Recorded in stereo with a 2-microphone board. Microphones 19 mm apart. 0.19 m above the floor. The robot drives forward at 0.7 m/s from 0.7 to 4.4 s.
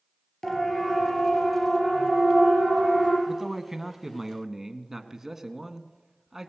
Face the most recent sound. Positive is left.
turn(degrees=-20)  # may be behind; listen again after turning